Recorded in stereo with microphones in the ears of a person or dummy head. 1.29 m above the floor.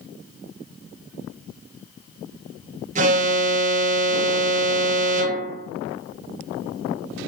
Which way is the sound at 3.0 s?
35° right (ahead or behind).